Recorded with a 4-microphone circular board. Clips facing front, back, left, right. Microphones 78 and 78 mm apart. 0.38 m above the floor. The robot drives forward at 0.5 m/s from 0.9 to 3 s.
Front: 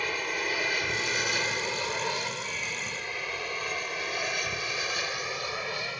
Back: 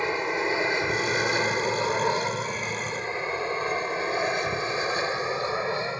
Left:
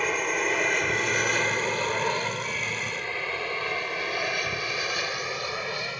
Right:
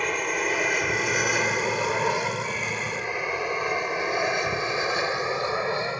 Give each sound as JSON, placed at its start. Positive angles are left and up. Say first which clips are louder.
{"t": 0.0, "sound": "an aircraft", "louder": "back 6 dB, even", "azimuth_deg": 180}